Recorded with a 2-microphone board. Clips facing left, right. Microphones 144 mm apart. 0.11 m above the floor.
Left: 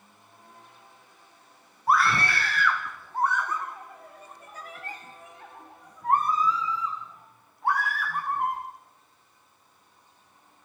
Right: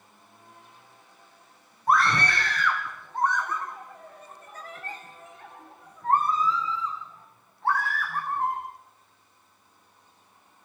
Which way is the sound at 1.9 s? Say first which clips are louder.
Even; 5° left (ahead or behind).